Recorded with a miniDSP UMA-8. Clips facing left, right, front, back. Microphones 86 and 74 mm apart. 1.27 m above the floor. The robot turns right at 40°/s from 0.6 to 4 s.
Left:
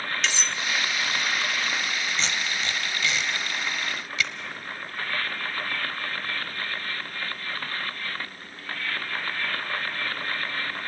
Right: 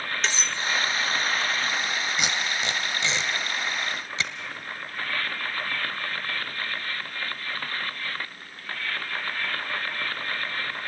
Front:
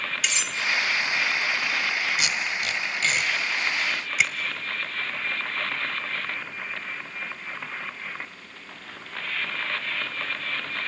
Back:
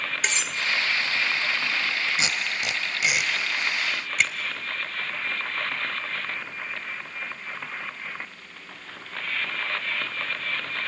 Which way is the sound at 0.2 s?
135° right.